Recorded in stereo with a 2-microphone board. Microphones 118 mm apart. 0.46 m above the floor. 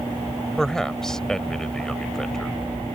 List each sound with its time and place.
0.6 s a man speaking: 5° left (ahead or behind)